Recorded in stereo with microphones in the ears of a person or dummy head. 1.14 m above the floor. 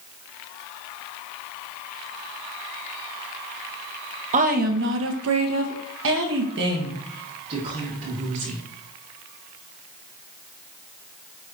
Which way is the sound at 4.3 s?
35° right (ahead or behind).